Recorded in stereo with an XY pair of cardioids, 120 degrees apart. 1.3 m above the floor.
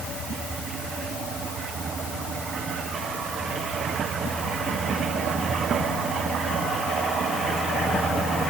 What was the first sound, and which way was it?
Only background noise.